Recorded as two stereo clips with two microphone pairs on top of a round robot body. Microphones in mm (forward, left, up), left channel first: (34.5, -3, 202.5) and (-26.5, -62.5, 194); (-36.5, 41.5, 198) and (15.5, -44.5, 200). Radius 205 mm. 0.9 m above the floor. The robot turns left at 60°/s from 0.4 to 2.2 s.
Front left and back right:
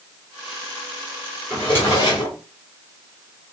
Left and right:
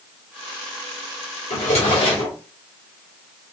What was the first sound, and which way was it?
A drawer, 125° left.